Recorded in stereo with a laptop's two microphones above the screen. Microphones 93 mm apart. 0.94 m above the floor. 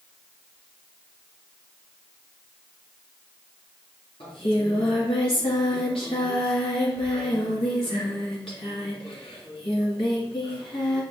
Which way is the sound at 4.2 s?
70° left (ahead or behind).